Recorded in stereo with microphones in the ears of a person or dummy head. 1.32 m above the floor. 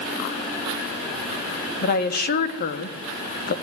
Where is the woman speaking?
50° left (ahead or behind), 2.5 m.